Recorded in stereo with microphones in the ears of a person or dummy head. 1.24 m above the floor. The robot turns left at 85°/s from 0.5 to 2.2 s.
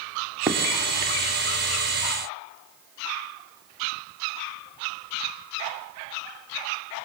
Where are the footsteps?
5° right (ahead or behind), 2.5 m; by 0.6 s centre (ahead or behind), 2.5 m.